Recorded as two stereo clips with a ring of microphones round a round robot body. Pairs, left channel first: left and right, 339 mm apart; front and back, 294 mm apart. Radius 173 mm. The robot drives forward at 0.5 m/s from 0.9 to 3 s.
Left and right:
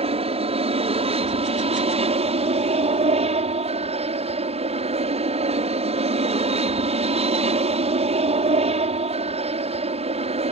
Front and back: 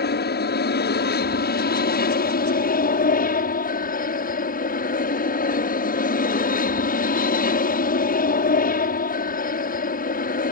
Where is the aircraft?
30° right; by 10.5 s 35° right.